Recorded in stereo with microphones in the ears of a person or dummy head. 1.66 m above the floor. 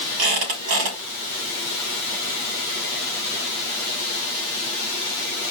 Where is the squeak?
55° right (ahead or behind), 3 m.